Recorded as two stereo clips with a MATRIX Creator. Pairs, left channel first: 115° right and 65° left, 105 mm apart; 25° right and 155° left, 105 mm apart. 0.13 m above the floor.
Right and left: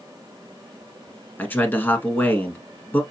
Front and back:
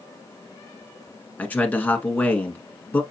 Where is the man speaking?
70° right, 1.1 m.